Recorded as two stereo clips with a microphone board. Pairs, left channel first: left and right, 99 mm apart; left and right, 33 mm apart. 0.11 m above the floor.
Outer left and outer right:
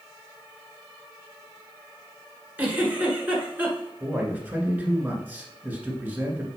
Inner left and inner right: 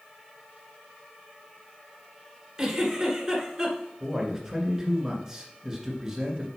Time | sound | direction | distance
2.6 | a giggle | 15° right (ahead or behind) | 1.7 m
4.0 | a man speaking | 15° right (ahead or behind) | 1.6 m